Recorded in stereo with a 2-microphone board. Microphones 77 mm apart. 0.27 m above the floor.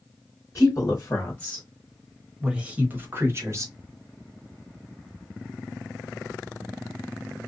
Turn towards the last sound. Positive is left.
turn(degrees=-40)  # may be behind; listen again after turning